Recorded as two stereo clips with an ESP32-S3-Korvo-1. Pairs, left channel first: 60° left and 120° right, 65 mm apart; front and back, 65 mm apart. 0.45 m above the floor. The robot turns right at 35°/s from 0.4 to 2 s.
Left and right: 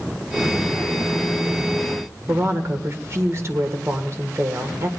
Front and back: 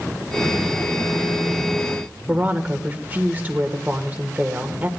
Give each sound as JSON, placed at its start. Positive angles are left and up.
{"t": 2.3, "sound": "a woman speaking", "azimuth_deg": -125, "distance_m": 1.7}